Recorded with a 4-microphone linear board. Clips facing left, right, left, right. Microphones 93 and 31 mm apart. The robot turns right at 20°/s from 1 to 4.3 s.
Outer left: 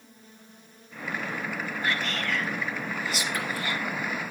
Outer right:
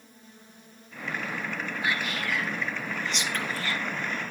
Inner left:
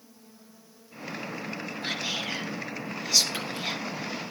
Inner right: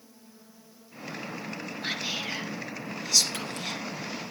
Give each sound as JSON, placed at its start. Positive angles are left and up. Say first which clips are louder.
{"t": 1.8, "sound": "whispering", "louder": "outer left 1 dB, even", "side_deg": -15, "distance_m": 2.5}